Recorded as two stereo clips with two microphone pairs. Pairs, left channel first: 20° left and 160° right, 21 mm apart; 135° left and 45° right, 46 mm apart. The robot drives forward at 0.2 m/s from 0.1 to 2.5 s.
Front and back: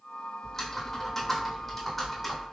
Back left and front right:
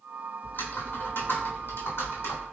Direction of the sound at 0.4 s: 90° left.